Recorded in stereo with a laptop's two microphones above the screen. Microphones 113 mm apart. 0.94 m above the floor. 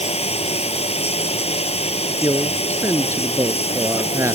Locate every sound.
0.0 s running water: 65° left (ahead or behind)
2.1 s a man speaking: 25° right (ahead or behind)